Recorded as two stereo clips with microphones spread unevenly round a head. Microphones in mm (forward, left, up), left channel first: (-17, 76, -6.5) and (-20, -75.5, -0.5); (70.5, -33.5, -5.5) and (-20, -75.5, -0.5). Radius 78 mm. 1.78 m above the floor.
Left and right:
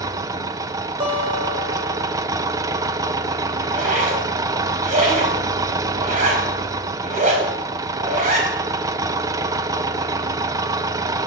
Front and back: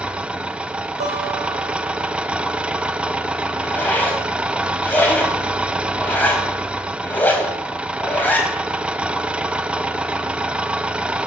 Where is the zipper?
50° right, 4.5 m.